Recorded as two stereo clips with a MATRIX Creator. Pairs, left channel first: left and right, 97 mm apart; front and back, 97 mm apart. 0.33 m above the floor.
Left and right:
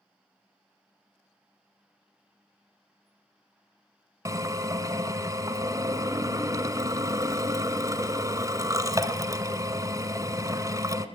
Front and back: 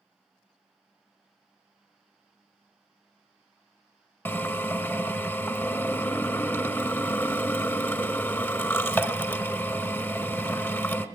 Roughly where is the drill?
Ahead right.